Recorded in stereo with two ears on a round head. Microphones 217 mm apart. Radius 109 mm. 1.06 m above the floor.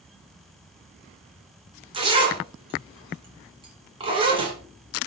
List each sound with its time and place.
1.9 s a zipper: 20° right (ahead or behind), 2.5 m